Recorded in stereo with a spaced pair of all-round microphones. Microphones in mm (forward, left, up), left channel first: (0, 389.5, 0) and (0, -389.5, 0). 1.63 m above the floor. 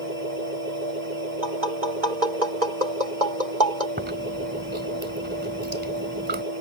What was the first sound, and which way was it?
A machine running, 65° left (ahead or behind).